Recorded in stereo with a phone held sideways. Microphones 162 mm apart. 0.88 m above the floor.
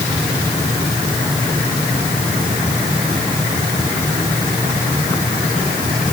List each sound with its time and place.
Only background noise.